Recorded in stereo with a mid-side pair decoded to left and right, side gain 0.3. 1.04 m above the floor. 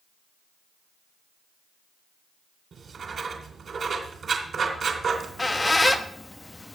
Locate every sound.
2.7 s writing: 65° right, 3 m
5.1 s a squeak: 30° left, 1.1 m